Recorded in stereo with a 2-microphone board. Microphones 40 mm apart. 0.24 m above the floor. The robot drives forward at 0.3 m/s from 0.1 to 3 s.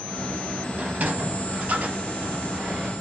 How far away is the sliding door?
About 0.9 m.